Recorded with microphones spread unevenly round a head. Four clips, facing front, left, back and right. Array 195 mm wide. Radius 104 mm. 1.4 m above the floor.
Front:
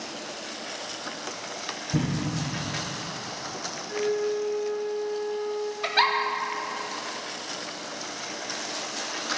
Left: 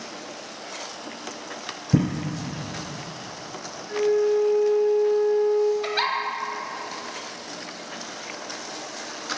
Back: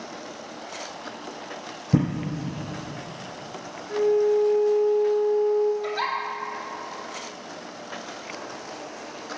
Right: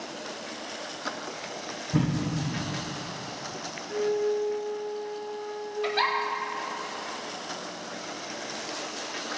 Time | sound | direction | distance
1.9 | a thud | 130° left | 3.5 m
3.9 | a flute | 85° left | 2.5 m
5.8 | a giggle | 10° left | 1.8 m